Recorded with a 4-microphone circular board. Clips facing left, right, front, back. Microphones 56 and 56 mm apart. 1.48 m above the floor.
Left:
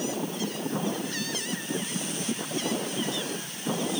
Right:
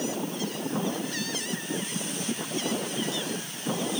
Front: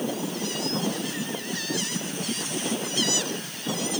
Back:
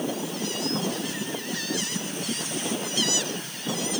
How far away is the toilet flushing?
I don't hear a toilet flushing.